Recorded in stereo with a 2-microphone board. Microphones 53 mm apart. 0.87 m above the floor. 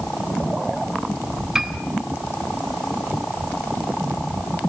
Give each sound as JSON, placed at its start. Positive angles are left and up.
{"t": 1.6, "sound": "a piano", "side_deg": -10, "distance_m": 1.6}